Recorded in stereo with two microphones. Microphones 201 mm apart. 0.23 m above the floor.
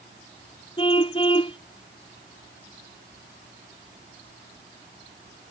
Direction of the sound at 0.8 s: 25° left (ahead or behind).